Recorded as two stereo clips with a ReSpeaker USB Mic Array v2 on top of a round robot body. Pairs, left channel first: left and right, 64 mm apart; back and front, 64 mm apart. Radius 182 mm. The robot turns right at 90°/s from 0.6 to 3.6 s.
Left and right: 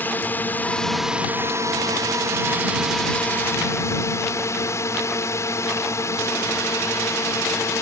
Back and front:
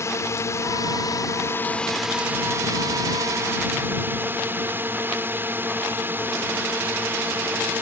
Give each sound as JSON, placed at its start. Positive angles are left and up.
{"t": 0.0, "sound": "a drone", "azimuth_deg": 145}